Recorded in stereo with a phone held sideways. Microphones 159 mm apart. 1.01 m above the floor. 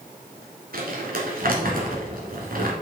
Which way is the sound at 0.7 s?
65° right (ahead or behind).